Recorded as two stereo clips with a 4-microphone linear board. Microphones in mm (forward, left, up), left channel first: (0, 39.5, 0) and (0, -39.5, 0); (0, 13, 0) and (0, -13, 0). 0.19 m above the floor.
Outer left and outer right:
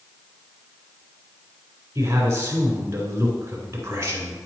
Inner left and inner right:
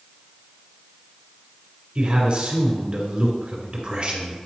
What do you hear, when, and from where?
1.9 s a man speaking: 40° right (ahead or behind), 2 m